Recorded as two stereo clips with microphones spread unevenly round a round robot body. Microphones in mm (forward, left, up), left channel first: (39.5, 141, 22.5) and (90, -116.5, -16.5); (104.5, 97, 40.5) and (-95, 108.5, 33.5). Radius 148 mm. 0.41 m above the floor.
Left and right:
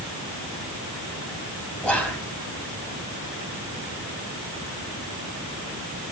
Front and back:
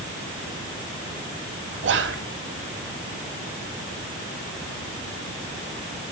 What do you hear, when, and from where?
1.8 s whispering: 170° right, 2.5 m